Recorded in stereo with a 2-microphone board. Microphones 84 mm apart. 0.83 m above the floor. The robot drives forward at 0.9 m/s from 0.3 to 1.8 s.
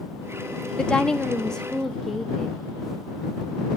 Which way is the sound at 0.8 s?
10° left (ahead or behind).